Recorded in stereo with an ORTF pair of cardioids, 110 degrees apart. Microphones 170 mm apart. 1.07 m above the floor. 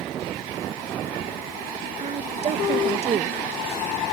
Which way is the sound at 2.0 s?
40° right.